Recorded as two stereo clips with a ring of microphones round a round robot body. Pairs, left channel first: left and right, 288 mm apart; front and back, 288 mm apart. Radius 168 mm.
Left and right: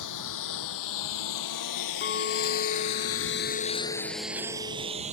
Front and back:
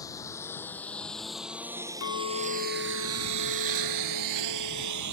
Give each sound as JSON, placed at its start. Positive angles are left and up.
{"t": 0.0, "sound": "a lawn mower", "azimuth_deg": 80}
{"t": 2.0, "sound": "a clink", "azimuth_deg": 40}